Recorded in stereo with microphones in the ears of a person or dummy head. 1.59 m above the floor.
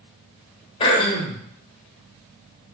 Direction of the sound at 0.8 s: 30° left (ahead or behind).